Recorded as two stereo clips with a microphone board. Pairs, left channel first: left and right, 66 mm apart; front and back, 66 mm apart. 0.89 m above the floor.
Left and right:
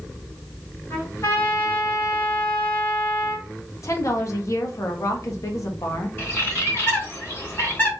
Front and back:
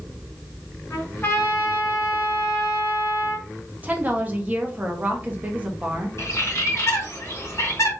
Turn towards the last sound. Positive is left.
turn(degrees=35)